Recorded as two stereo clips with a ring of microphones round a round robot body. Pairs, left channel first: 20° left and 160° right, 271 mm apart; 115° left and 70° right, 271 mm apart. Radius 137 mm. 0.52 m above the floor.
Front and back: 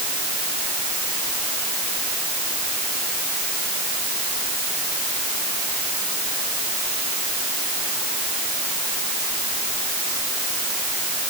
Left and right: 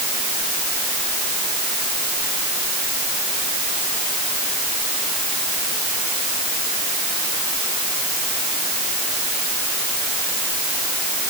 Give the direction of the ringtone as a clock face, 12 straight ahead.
I don't hear a ringtone.